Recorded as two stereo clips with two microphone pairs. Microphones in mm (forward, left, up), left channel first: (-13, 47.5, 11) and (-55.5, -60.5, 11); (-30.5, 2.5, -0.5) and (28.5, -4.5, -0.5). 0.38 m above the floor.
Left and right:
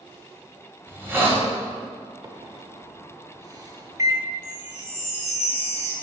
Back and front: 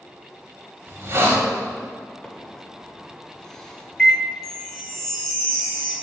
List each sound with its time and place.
0.9 s a hiss: 45° right, 1.6 m
2.2 s a microwave: 120° right, 0.8 m
4.4 s a chime: 80° left, 2 m